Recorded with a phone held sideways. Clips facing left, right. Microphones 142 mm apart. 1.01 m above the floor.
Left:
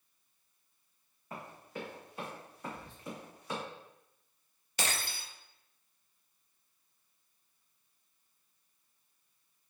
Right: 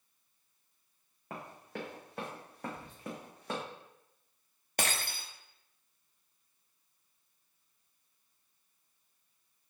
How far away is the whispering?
About 2.5 m.